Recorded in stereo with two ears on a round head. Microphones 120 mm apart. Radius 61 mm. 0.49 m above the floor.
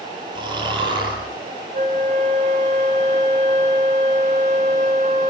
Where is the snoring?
35° right (ahead or behind), 9 m.